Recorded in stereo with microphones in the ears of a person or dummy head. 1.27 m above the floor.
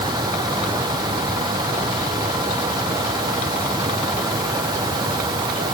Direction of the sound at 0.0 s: 20° right (ahead or behind).